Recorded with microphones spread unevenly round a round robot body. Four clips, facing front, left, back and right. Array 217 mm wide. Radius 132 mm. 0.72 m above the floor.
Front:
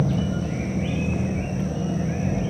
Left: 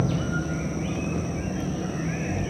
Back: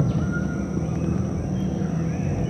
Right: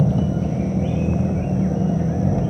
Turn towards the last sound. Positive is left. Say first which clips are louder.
# right 6 dB, even
turn(degrees=-90)